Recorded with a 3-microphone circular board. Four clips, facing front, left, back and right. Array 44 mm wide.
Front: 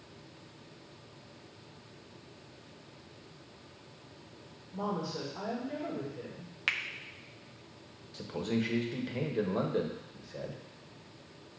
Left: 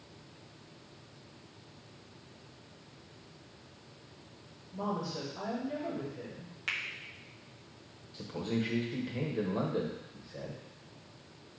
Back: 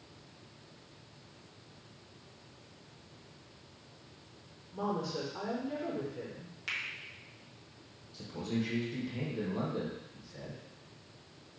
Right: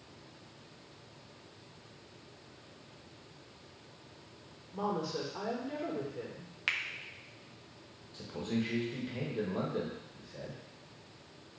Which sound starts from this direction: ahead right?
A finger snap, at 6.7 s.